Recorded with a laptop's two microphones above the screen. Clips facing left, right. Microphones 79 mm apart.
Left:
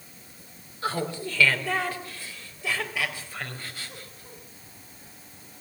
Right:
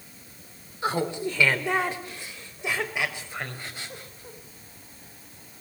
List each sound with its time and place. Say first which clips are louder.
0.8 s laughter: right 3 dB; 20° right (ahead or behind), 3 m